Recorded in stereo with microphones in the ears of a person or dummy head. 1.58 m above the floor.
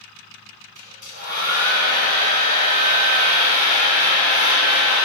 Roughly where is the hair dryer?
Right.